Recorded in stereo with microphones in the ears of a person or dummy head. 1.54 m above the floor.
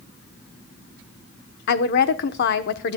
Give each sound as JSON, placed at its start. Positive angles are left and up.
{"t": 1.7, "sound": "a woman speaking", "side_deg": 60, "distance_m": 1.0}